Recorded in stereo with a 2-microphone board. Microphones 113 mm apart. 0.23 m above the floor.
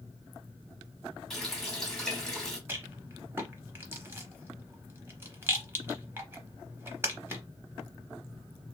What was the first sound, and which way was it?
A running tap, 5° left (ahead or behind).